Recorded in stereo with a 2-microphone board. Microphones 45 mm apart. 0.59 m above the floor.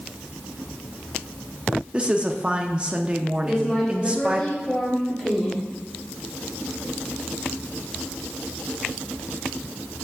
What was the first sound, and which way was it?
A woman speaking, 20° right (ahead or behind).